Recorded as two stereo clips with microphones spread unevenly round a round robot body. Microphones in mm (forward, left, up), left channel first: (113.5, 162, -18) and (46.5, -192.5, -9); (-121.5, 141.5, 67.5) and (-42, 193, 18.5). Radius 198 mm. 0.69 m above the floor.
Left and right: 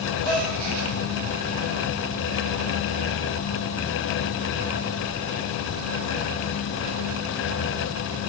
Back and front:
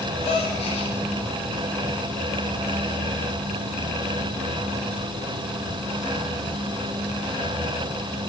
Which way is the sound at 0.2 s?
130° right.